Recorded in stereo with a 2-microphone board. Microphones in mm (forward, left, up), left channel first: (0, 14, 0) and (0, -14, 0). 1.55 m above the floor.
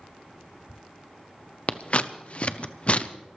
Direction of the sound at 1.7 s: 40° left (ahead or behind).